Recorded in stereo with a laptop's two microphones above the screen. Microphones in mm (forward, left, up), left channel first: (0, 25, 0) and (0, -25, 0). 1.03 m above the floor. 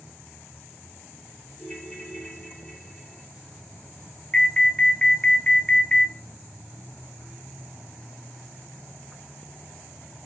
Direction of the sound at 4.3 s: 15° left (ahead or behind).